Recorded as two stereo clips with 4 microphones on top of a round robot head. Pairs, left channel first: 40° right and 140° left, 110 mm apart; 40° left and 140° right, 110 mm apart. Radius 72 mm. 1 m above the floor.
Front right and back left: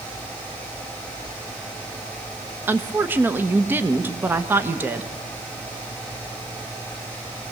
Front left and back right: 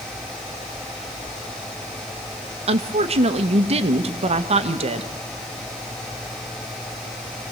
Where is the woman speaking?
150° right, 1.1 m.